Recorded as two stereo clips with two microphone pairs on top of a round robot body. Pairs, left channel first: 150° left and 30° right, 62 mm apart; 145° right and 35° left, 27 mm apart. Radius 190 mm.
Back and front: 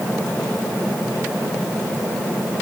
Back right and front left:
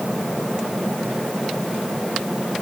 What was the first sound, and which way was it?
Only background noise.